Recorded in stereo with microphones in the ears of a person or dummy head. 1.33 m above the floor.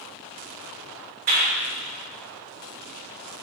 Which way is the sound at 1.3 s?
55° right (ahead or behind).